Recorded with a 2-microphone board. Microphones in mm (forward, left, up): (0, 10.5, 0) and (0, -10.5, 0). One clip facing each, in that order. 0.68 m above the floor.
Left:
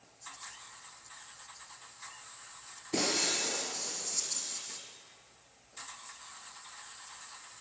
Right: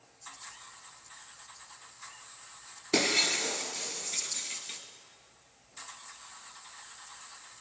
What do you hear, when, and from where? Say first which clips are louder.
2.9 s breaking glass: right 4 dB; 55° right (ahead or behind), 2 m